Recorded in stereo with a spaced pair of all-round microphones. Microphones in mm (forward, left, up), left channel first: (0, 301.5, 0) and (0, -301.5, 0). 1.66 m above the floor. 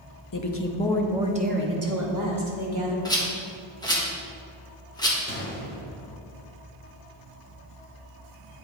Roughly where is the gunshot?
Centre.